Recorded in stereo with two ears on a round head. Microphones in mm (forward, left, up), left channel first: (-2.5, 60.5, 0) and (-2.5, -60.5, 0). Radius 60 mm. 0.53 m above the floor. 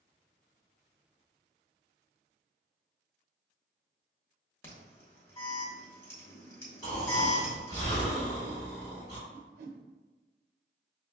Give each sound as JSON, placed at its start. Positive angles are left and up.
{"t": 4.6, "sound": "an alarm", "side_deg": 20, "distance_m": 1.0}
{"t": 6.8, "sound": "snoring", "side_deg": 30, "distance_m": 1.8}
{"t": 9.3, "sound": "a whoosh", "side_deg": -60, "distance_m": 0.6}